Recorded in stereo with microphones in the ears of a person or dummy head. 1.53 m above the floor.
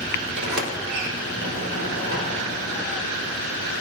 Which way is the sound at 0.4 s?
75° right (ahead or behind).